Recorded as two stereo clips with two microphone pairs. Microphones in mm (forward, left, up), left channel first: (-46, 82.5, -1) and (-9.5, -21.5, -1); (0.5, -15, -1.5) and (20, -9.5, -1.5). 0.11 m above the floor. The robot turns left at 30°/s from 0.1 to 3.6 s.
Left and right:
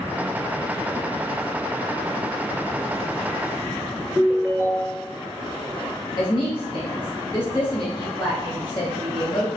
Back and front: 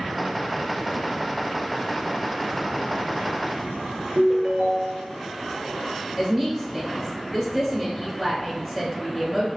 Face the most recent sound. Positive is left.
turn(degrees=95)